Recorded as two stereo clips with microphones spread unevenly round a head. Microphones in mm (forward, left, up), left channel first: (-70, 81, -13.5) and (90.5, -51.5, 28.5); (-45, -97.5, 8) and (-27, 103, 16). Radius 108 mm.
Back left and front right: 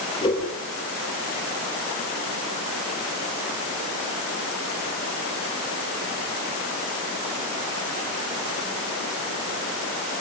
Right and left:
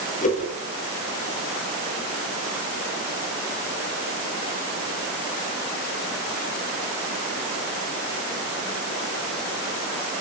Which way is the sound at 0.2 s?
150° right.